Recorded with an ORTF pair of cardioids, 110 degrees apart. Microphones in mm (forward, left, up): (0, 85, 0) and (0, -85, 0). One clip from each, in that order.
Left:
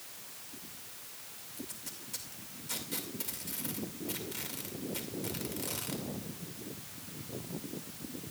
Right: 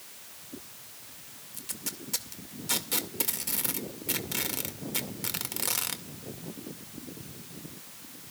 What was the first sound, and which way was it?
Tape being pulled, 55° right.